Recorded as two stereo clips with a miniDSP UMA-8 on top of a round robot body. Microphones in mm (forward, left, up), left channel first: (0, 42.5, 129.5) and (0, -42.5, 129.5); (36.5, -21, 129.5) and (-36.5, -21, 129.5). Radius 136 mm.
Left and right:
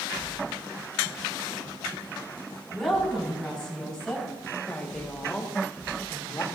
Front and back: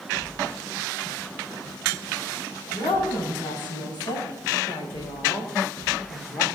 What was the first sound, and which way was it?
A woman speaking, 5° left.